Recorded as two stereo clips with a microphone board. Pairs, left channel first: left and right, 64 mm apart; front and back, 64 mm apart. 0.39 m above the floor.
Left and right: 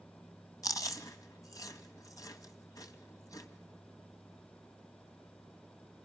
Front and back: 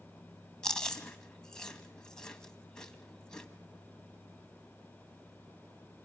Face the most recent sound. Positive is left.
turn(degrees=75)